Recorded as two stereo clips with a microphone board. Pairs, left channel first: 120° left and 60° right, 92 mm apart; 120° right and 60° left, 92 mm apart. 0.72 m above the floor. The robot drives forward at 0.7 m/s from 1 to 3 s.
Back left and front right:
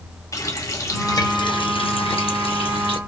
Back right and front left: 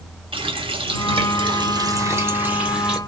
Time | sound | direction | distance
0.3 | a running tap | 65° left | 0.9 m